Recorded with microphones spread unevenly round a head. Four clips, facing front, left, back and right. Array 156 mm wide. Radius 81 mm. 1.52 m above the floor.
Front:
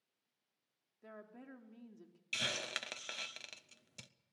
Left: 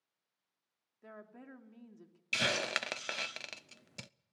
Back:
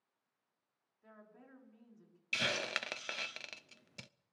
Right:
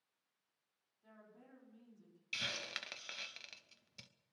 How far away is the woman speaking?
About 3 m.